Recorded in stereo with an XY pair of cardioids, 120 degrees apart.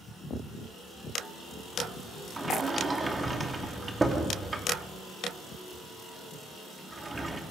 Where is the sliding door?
20° right, 2.5 m.